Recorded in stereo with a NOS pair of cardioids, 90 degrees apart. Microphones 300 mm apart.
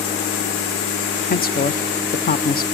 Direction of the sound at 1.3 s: 30° left.